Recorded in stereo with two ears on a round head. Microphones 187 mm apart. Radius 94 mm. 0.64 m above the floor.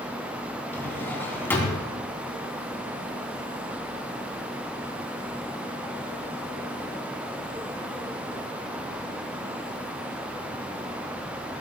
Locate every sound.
0.7 s a drawer: 10° left (ahead or behind), 3.5 m